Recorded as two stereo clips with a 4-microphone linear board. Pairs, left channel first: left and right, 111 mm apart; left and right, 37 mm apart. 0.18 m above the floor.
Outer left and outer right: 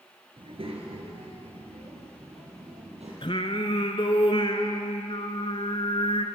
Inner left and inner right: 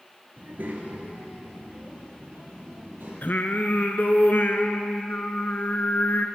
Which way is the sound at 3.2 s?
55° left (ahead or behind).